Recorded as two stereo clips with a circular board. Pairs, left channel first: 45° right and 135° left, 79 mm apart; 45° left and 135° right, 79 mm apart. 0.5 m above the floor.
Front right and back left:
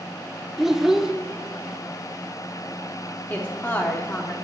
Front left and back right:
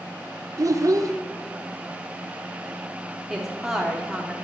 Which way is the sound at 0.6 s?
145° right.